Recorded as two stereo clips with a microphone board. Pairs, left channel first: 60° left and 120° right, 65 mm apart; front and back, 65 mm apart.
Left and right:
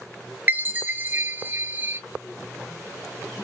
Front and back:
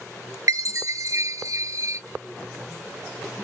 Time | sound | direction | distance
0.5 | a chime | 175° right | 0.6 m